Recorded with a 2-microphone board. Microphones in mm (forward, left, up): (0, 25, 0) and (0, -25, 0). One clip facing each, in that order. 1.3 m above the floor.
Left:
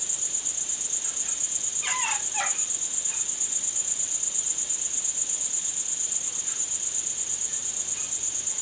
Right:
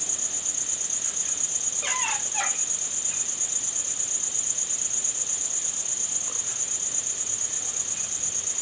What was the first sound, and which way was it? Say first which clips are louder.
An insect: right 3 dB; 60° right (ahead or behind).